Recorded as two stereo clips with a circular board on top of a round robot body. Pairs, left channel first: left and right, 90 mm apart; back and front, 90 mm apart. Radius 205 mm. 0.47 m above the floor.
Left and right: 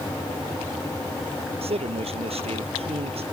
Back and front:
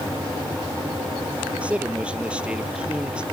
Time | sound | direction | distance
1.6 | a man speaking | 80° right | ?